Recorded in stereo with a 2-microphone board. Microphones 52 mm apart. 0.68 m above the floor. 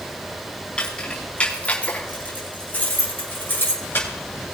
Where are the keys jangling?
20° left (ahead or behind), 4.5 m; by 4.1 s 45° left (ahead or behind), 7 m.